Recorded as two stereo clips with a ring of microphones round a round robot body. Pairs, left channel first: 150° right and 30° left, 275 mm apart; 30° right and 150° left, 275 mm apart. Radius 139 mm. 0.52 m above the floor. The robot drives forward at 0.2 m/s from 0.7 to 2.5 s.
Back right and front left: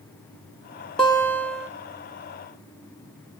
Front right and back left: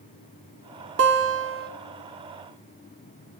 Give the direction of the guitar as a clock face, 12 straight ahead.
8 o'clock.